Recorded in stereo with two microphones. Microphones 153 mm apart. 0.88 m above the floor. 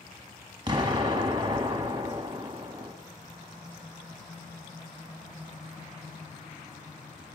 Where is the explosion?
30° right (ahead or behind), 1.1 m.